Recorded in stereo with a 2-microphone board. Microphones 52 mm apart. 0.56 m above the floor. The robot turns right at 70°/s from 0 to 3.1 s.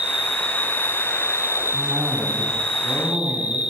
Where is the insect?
15° right, 3 m; by 3.7 s 160° right, 3 m.